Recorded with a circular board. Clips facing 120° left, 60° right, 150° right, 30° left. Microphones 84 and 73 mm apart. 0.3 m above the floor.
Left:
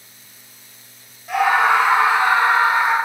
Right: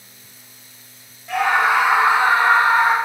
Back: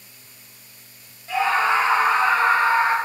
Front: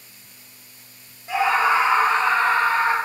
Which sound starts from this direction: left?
A scream, at 1.3 s.